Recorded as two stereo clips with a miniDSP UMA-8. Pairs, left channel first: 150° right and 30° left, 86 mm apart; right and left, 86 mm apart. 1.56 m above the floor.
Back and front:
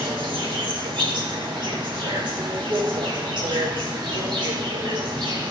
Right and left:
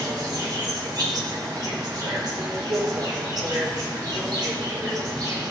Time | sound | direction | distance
0.0 | an insect | 50° left | 2.5 m